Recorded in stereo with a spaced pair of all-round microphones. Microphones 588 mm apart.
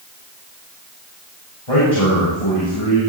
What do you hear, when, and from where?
1.7 s a man speaking: 65° left (ahead or behind), 8.5 m